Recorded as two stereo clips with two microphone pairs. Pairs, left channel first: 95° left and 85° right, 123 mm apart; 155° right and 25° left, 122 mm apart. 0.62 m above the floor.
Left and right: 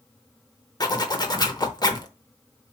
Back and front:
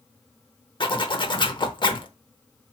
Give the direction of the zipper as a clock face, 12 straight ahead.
7 o'clock.